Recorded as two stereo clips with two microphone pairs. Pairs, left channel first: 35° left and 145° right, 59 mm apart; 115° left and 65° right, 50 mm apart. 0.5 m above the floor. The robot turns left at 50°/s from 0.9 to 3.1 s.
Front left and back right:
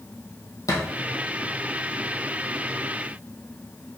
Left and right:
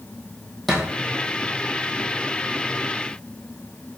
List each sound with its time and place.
0.7 s a thud: 30° left, 1.4 m